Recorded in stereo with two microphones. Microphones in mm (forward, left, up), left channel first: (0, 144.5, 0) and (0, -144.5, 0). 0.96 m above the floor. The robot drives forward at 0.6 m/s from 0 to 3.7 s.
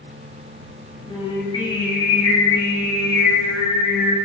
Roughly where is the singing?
Centre.